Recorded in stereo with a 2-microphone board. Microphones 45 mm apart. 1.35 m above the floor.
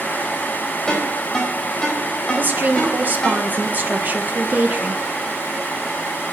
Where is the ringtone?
15° left (ahead or behind), 4.5 m.